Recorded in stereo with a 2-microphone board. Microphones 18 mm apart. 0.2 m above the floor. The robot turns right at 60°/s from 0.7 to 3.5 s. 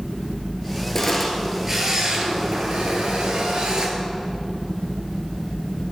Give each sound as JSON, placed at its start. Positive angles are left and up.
{"t": 0.9, "sound": "a camera shutter", "azimuth_deg": 155, "distance_m": 1.2}